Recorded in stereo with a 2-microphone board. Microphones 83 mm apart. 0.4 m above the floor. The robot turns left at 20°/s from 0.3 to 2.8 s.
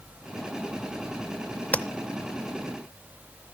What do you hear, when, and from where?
1.7 s tapping: 15° left (ahead or behind), 0.6 m